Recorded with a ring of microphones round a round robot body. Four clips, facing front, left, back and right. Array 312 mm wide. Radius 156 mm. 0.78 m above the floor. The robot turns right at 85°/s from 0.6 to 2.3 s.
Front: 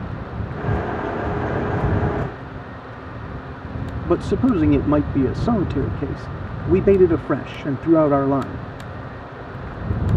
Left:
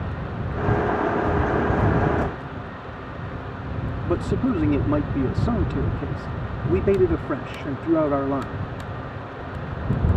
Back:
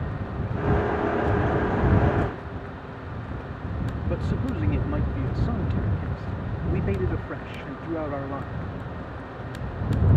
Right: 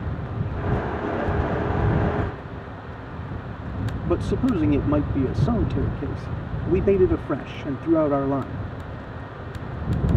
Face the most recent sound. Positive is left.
turn(degrees=-5)